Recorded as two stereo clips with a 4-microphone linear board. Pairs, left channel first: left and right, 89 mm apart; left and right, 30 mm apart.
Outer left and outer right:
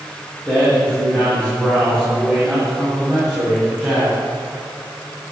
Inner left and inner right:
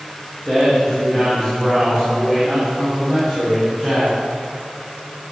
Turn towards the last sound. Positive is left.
turn(degrees=-15)  # may be behind; listen again after turning